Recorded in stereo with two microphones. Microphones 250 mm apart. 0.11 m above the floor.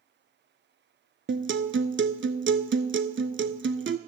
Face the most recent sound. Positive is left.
turn(degrees=-50)  # may be behind; listen again after turning